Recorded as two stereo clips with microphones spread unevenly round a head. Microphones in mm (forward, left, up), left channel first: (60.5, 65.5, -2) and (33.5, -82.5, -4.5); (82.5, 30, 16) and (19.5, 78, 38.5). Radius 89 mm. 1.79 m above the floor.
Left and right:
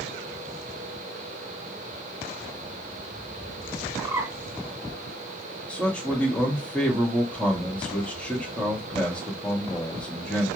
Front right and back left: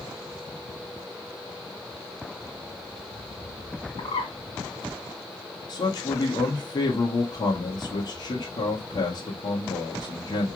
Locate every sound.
4.0 s a bird: 25° right, 2 m
5.7 s a man speaking: 5° right, 1.4 m